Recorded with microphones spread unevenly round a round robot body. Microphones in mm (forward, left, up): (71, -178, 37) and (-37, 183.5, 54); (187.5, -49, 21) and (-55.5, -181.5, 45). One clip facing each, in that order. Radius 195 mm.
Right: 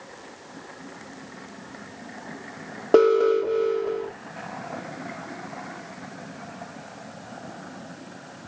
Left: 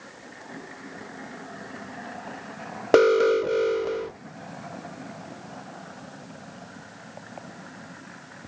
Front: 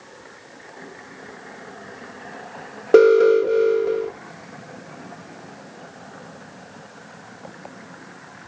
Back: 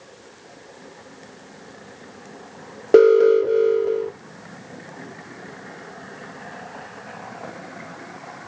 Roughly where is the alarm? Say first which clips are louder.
Right 1 dB, even; left.